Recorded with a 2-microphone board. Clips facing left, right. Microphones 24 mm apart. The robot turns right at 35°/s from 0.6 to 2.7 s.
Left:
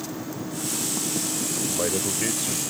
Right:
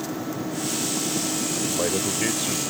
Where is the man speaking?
Straight behind; by 2.6 s 145° right.